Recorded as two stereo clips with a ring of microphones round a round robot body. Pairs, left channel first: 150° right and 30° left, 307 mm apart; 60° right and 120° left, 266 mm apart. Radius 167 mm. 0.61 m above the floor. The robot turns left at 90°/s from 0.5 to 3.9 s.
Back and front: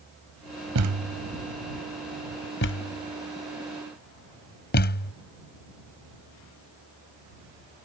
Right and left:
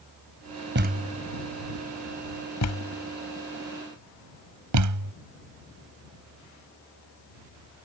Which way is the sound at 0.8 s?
75° left.